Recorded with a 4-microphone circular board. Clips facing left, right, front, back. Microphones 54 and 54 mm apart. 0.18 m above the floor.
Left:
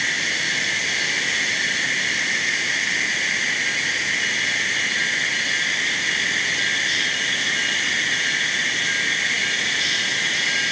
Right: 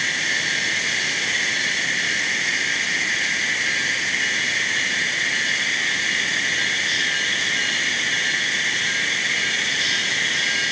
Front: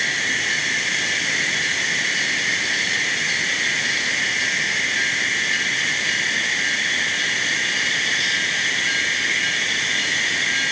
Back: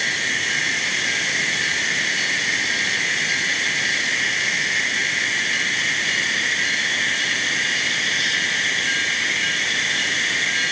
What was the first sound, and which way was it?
Only background noise.